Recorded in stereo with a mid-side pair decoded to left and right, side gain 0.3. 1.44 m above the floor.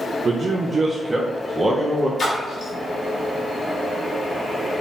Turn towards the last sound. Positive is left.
turn(degrees=65)